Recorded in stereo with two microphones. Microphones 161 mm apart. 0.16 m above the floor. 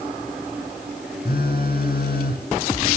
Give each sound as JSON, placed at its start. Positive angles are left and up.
{"t": 1.2, "sound": "a phone buzzing", "side_deg": 75, "distance_m": 2.5}